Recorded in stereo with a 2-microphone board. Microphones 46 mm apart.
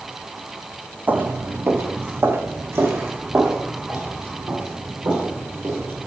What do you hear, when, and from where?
1.1 s footsteps: 35° right (ahead or behind), 0.5 m; by 6.1 s 55° right (ahead or behind), 4 m